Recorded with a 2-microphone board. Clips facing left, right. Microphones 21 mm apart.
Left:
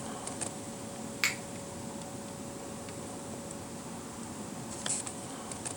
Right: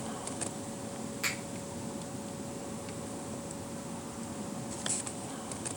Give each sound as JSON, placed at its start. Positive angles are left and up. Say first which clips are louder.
{"t": 1.2, "sound": "a finger snap", "louder": "left 4 dB", "side_deg": 45, "distance_m": 0.6}